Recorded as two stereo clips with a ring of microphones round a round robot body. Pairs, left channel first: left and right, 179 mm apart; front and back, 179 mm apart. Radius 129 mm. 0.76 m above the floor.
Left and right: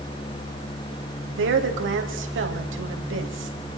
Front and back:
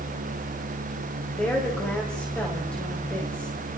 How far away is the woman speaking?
About 4 m.